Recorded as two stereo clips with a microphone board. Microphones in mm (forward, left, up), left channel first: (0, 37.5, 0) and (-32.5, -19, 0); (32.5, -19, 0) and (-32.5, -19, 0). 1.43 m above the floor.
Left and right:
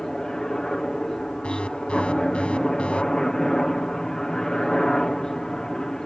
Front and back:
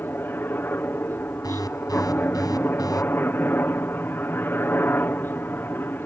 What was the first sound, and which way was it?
A helicopter, 15° right.